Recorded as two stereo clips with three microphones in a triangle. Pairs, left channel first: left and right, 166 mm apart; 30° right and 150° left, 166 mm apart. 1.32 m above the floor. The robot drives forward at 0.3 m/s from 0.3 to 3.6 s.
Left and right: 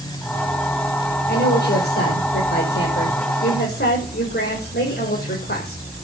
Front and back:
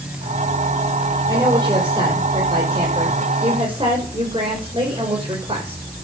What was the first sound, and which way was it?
A woman speaking, 85° left.